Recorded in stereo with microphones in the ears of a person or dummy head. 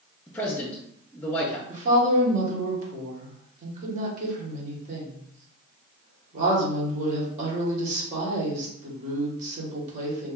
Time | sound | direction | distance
0.3 | a man speaking | 15° left (ahead or behind) | 0.7 m
1.7 | a woman speaking | 40° right (ahead or behind) | 1.4 m